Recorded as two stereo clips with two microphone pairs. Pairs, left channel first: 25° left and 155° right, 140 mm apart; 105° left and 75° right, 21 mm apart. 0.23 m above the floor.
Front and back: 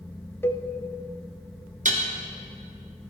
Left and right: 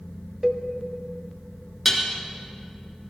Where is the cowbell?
40° right, 0.9 m.